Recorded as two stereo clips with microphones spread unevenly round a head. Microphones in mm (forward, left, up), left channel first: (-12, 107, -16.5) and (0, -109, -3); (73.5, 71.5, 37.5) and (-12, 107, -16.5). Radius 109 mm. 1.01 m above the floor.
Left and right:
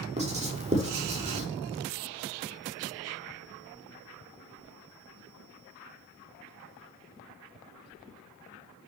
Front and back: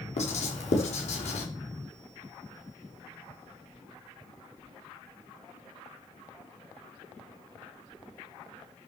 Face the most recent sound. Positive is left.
turn(degrees=-25)